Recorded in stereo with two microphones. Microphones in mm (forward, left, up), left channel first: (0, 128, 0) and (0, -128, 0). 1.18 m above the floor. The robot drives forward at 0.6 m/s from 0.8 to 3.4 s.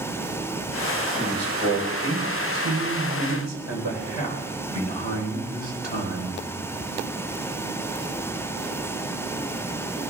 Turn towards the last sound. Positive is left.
turn(degrees=-85)